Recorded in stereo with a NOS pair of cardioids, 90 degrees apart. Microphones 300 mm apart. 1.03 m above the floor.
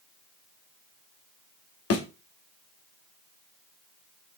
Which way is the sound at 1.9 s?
55° left.